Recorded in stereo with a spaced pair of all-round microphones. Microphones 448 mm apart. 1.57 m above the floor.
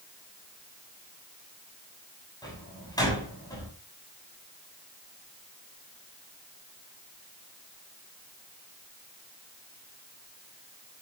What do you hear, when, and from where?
2.4 s a door slam: 10° left (ahead or behind), 8 m